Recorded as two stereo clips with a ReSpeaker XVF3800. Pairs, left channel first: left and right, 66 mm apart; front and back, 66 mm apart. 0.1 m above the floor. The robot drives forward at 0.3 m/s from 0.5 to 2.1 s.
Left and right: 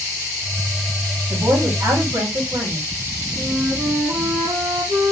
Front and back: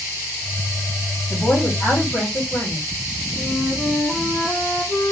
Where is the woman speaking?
80° right, 5 m.